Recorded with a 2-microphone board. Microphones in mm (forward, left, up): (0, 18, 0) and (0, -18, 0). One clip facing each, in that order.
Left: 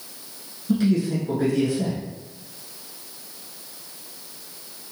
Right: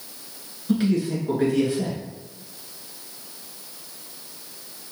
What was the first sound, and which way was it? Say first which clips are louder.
A man speaking: left 1 dB; 25° right (ahead or behind).